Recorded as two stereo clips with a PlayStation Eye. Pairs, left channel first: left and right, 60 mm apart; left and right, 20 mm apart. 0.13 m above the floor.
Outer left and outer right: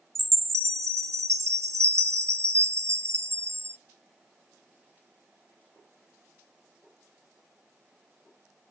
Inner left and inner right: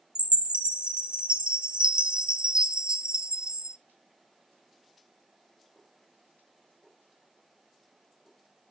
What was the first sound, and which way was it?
A chime, 50° right (ahead or behind).